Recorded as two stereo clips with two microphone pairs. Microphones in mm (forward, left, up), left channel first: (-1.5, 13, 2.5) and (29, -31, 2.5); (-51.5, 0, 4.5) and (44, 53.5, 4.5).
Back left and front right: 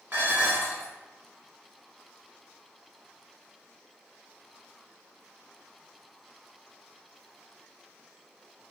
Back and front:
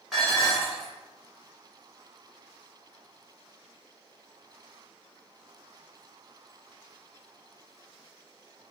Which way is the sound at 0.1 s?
60° right.